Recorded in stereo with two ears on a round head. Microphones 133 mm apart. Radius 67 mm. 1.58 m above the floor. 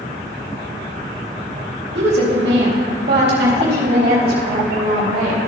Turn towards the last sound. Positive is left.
turn(degrees=-65)  # may be behind; listen again after turning